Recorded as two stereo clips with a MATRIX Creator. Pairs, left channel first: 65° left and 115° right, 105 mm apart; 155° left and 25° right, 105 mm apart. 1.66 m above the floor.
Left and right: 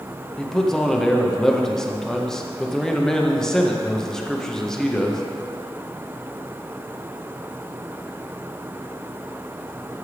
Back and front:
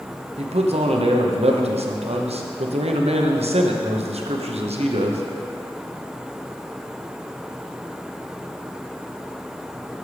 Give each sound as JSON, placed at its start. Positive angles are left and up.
{"t": 0.4, "sound": "a man speaking", "azimuth_deg": -20, "distance_m": 0.9}